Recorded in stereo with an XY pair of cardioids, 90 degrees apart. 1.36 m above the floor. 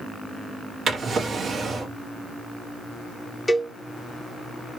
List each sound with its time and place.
0.9 s a drawer: 50° right, 1.5 m
3.5 s a cowbell: 10° left, 0.8 m